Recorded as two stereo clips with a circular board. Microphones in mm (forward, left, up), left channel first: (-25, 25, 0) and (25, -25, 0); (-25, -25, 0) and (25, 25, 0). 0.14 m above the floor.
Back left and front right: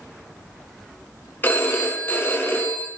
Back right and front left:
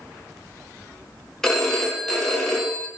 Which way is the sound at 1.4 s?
150° left.